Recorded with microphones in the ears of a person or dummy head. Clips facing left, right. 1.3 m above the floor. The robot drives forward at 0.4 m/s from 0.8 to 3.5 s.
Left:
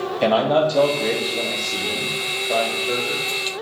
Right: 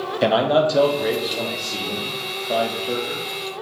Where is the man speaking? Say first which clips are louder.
Even; 10° right (ahead or behind), 0.5 m; by 3.3 s 5° right (ahead or behind), 1.4 m.